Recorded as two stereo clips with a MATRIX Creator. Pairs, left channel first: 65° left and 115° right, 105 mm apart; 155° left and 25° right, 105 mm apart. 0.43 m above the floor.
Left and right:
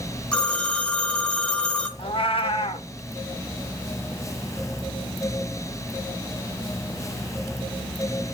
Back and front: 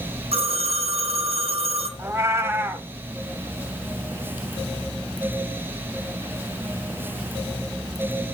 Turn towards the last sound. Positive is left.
turn(degrees=40)